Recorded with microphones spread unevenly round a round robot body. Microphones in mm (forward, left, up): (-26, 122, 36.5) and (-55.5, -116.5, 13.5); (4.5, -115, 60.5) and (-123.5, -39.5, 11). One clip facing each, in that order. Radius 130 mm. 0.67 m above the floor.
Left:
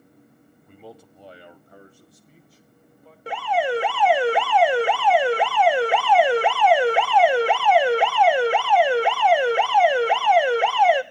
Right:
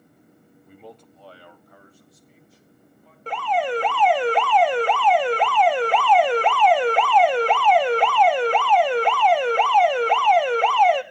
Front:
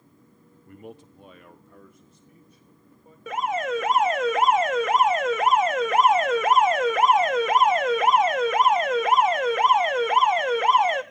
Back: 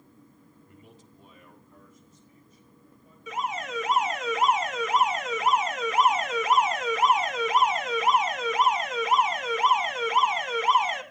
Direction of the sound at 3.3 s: Straight ahead.